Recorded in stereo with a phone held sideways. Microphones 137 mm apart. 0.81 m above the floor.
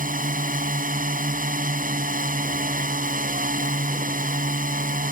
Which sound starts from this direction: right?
A drone, at 0.0 s.